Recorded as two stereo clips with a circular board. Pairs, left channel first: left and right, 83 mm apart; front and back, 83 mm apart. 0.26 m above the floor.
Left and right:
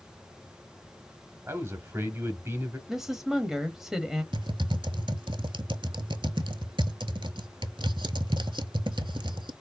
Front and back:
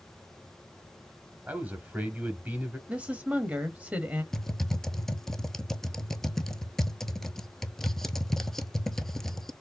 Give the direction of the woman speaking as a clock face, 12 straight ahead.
5 o'clock.